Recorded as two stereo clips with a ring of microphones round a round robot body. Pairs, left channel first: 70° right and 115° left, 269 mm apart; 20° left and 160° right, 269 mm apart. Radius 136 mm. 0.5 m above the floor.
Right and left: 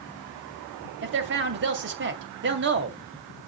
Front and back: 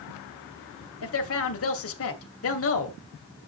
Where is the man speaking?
65° left, 2.5 m.